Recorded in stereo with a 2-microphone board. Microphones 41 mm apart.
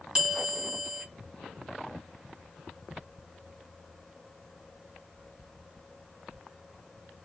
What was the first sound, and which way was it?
A bell, 15° right (ahead or behind).